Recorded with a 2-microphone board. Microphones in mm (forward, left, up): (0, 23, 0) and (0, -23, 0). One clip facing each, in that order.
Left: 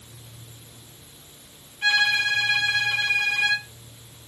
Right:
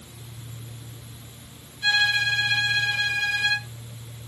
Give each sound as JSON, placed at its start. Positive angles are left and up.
{"t": 1.8, "sound": "a violin", "side_deg": 55, "distance_m": 5.5}